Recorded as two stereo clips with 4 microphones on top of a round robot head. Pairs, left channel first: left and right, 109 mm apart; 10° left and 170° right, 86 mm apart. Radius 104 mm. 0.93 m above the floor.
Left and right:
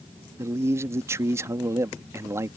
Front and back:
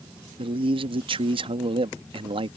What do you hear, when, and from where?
0.4 s a man speaking: 160° right